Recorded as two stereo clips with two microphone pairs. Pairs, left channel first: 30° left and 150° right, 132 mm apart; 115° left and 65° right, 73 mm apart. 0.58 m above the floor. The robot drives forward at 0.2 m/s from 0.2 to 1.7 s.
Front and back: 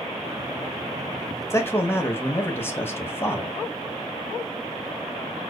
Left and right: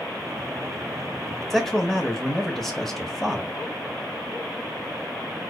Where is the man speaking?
30° left, 0.6 m; by 3.6 s 35° left, 0.6 m.